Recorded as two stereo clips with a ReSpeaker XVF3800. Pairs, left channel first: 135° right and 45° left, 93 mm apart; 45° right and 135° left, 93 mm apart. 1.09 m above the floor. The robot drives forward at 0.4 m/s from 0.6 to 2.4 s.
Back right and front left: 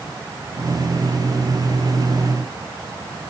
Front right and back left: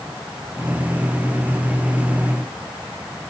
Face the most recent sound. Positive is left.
No sound to turn to.